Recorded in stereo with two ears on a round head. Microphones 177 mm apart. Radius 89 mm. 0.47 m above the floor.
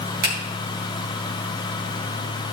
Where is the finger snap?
50° right (ahead or behind), 4 m.